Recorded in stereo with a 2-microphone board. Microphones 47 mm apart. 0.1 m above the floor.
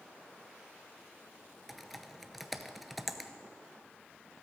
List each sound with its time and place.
1.7 s typing on a keyboard: centre (ahead or behind), 0.6 m